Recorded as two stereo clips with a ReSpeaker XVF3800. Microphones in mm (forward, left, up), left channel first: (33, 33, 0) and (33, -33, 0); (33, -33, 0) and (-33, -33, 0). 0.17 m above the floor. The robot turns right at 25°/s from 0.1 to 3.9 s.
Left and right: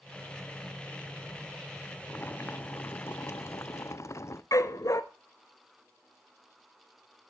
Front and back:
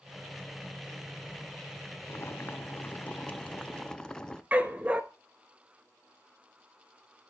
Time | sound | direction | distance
2.1 | boiling | 30° left | 0.7 m
4.5 | a dog barking | 115° left | 1.1 m